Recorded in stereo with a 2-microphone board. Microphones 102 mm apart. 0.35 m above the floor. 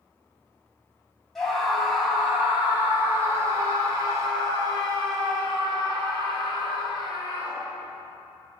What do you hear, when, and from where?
1.4 s a scream: 5° left (ahead or behind), 2 m; by 7.8 s 60° right (ahead or behind), 4 m